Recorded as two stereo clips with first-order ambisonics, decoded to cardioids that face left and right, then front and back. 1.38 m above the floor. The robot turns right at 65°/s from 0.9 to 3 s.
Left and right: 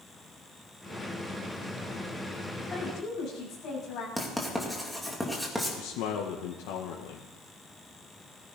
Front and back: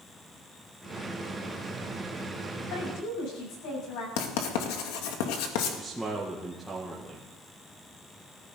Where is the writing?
Straight ahead, 2 m.